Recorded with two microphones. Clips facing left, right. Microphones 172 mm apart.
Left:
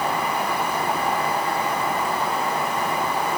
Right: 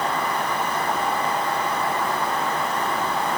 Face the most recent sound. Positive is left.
No sound to turn to.